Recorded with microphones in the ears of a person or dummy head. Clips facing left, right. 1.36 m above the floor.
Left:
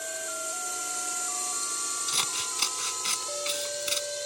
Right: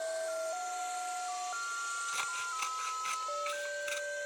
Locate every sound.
0.0 s a drone: 45° left (ahead or behind); by 4.3 s 60° left (ahead or behind)
2.1 s scissors: 60° left (ahead or behind)